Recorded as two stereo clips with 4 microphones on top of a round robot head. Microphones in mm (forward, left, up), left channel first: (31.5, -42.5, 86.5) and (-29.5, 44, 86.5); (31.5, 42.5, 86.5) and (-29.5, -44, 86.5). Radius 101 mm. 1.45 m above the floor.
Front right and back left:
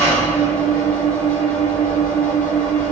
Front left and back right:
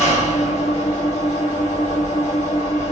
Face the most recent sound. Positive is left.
turn(degrees=30)